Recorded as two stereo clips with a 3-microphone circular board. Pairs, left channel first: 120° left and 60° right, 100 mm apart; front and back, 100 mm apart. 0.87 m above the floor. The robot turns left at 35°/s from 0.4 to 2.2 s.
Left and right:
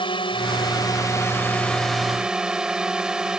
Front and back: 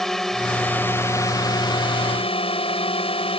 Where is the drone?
85° left; by 3.4 s 25° left.